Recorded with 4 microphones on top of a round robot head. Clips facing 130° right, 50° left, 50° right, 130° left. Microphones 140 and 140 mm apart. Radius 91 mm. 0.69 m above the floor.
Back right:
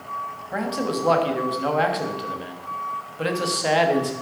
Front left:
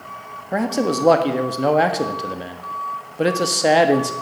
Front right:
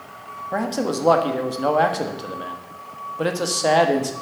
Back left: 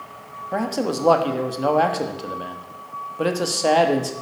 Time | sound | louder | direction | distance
0.5 | a man speaking | front left 5 dB, even | 50° left | 1.4 m